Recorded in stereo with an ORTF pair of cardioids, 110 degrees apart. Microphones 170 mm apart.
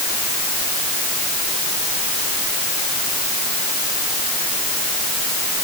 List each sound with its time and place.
Only background noise.